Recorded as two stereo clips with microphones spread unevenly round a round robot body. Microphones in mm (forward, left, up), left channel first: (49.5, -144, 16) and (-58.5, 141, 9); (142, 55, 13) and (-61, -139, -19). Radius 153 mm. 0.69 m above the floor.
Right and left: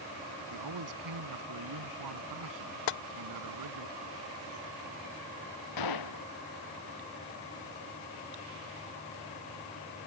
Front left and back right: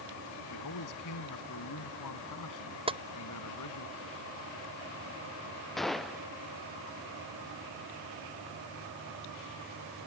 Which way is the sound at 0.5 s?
80° left.